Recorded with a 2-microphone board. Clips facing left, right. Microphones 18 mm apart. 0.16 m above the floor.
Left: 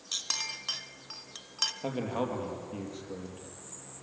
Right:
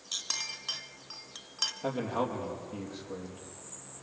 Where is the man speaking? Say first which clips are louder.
Right 1 dB; 5° left (ahead or behind), 4.5 m.